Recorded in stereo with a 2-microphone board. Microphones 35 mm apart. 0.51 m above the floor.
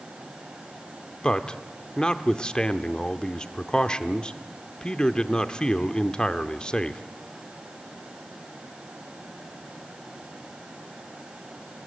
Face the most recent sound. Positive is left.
turn(degrees=25)  # may be behind; listen again after turning